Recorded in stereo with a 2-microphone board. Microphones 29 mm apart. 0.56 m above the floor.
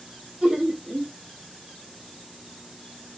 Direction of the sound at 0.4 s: 30° right (ahead or behind).